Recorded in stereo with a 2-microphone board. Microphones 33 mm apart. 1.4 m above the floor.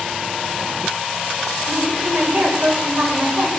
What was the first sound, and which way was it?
A woman speaking, 45° right (ahead or behind).